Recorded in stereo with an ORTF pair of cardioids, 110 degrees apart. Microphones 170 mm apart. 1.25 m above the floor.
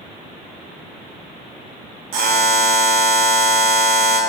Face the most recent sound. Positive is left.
turn(degrees=-60)